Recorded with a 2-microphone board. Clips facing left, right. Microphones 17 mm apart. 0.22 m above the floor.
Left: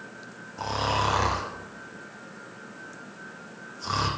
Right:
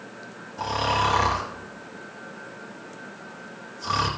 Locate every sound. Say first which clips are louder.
0.6 s snoring: right 3 dB; centre (ahead or behind), 2 m